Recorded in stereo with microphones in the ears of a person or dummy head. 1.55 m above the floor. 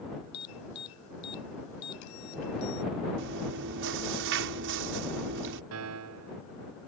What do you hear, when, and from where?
0.3 s an alarm: 80° left
3.2 s chewing: 65° right (ahead or behind)
5.7 s a piano: 80° right